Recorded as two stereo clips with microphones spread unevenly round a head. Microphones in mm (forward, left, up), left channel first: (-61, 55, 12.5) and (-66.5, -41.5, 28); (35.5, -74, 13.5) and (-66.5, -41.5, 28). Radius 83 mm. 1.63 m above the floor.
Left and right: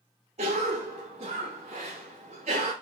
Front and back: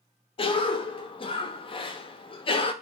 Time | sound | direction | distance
0.4 | a cough | 60° right | 0.5 m